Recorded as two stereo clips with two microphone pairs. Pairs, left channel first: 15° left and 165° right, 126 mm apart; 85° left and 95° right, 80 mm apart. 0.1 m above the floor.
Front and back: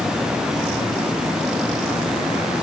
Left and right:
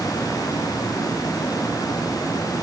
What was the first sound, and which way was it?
Only background noise.